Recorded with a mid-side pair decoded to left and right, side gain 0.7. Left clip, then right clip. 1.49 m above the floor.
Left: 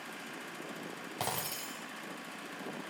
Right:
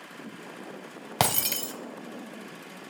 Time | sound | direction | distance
1.2 | breaking glass | 60° right | 3.5 m